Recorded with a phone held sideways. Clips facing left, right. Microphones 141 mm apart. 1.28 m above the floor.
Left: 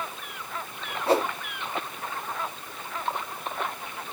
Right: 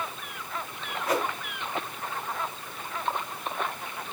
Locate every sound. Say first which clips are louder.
1.1 s a whoosh: left 5 dB; 30° left (ahead or behind), 1.2 m